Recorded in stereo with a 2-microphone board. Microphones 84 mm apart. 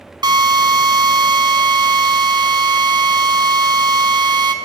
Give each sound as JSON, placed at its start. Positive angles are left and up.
{"t": 0.2, "sound": "a drill", "side_deg": -55, "distance_m": 1.8}